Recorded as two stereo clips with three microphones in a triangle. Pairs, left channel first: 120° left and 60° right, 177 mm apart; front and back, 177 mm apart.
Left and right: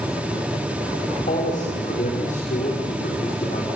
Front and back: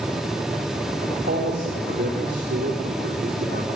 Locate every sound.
1.1 s a man speaking: 165° left, 5.5 m